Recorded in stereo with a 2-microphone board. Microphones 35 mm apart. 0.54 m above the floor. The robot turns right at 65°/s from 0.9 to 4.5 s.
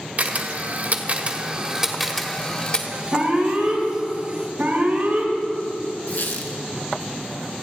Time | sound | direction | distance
0.2 | a camera shutter | 45° right (ahead or behind) | 1.5 m
3.1 | an alarm | 145° right | 3 m
6.1 | a squeak | 80° left | 1.8 m